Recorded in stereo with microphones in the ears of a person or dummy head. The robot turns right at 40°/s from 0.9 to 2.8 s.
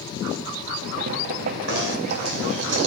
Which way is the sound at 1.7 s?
100° right.